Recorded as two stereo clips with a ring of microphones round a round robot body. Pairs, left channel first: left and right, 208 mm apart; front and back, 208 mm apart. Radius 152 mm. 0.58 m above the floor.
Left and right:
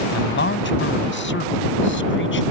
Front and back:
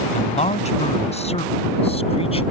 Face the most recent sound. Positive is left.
turn(degrees=65)